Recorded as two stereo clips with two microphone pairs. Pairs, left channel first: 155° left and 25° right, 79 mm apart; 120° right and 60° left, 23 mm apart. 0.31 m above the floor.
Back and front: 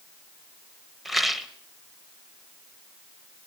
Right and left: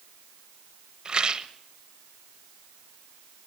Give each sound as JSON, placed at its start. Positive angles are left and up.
{"t": 1.1, "sound": "a rattle", "azimuth_deg": 60, "distance_m": 1.0}